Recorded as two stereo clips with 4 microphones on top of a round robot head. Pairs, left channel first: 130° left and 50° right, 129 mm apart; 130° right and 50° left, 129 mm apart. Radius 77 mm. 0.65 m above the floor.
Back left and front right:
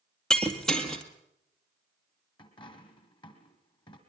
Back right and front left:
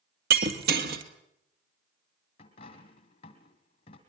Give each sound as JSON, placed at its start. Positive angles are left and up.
{"t": 0.3, "sound": "breaking glass", "azimuth_deg": 45, "distance_m": 2.0}
{"t": 2.4, "sound": "a dropped coin", "azimuth_deg": -175, "distance_m": 3.0}